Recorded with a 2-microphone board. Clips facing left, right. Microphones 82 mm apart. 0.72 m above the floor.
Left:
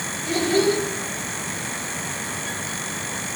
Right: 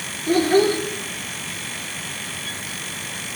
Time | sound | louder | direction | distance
0.3 | a child speaking | right 3 dB | 40° right (ahead or behind) | 1.2 m